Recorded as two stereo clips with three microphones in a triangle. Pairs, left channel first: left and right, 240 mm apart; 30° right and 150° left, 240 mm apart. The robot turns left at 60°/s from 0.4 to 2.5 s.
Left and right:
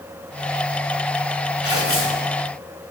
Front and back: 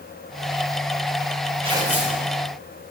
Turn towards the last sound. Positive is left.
turn(degrees=35)